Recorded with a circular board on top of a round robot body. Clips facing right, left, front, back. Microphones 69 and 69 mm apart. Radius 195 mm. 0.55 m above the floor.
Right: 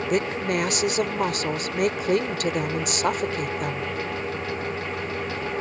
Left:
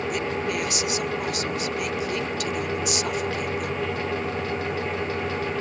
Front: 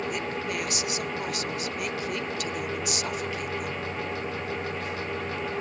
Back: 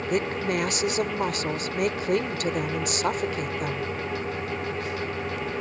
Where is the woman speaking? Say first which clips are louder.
Right 6 dB, back 5 dB; 135° right.